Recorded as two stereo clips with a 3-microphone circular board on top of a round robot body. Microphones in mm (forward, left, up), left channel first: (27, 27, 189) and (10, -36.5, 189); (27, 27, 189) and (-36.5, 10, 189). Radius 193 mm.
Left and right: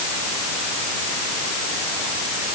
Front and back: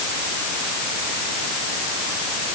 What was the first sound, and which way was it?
Only background noise.